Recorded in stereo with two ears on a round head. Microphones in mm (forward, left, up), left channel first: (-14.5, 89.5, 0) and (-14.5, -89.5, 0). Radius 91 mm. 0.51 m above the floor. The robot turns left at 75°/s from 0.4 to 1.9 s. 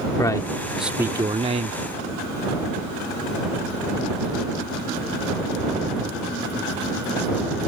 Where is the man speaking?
25° left; by 1.8 s 75° right.